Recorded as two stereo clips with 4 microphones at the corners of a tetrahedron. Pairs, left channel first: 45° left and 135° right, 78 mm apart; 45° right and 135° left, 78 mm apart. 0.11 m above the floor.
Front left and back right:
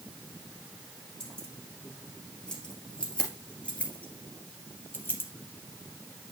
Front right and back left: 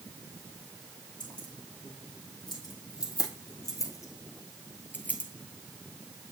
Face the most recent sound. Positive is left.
turn(degrees=15)